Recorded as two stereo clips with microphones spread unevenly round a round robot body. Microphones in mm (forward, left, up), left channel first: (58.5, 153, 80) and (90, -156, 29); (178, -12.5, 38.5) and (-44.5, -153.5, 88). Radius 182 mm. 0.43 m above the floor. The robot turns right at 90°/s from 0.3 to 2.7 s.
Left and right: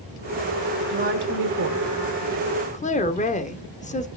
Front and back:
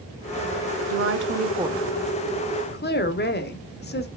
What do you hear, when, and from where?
0.9 s a woman speaking: 135° right, 1.6 m; by 4.1 s 25° left, 1.6 m